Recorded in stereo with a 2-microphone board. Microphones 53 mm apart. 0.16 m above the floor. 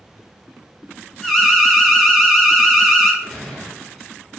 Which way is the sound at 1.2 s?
5° left (ahead or behind).